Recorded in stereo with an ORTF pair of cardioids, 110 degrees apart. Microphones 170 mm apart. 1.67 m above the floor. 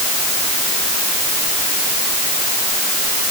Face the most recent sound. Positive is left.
No sound to turn to.